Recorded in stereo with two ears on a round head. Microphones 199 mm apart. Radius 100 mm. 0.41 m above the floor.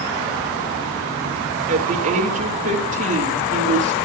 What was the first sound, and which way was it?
A woman speaking, 35° right (ahead or behind).